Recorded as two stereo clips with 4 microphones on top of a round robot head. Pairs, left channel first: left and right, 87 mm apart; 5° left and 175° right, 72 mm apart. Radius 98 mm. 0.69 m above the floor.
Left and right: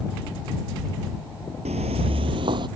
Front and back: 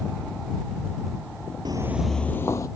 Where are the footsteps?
120° right; by 2.7 s 55° right.